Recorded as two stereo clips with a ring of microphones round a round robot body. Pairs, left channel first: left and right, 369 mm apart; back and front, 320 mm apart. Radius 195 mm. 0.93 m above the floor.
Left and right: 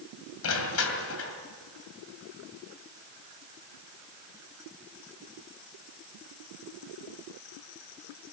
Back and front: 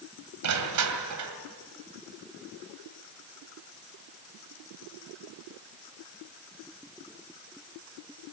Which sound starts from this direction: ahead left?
Crushing, at 0.4 s.